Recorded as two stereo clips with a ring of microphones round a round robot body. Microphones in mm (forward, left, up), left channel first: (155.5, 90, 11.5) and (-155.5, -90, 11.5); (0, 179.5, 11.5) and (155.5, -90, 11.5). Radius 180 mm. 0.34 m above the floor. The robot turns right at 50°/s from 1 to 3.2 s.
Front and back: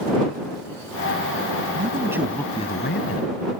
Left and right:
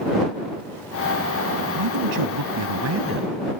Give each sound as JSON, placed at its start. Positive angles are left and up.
{"t": 1.8, "sound": "a man speaking", "azimuth_deg": -85}